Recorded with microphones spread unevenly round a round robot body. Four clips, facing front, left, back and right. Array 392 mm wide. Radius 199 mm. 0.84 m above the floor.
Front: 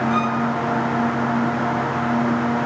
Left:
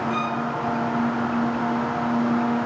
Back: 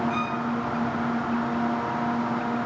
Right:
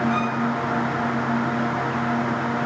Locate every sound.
0.1 s a violin: 35° left, 5.5 m